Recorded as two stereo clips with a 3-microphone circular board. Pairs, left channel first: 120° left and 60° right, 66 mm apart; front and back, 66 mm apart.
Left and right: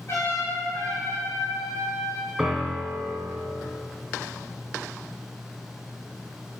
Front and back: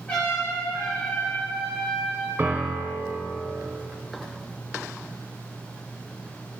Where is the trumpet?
70° left, 6.5 m.